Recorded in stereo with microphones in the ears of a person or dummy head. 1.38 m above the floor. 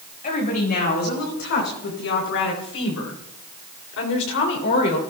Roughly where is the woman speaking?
Left.